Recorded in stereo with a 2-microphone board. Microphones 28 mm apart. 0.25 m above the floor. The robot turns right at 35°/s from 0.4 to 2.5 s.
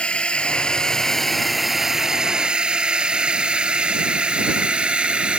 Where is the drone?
45° left (ahead or behind); by 5.4 s 40° right (ahead or behind).